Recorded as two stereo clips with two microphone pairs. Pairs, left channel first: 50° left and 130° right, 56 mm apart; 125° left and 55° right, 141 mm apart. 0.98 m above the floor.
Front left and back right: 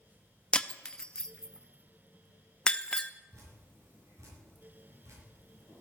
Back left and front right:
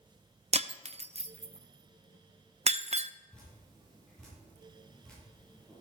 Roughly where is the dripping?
Behind right.